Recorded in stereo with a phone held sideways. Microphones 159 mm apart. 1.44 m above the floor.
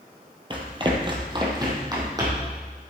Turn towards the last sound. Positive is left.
turn(degrees=-25)  # may be behind; listen again after turning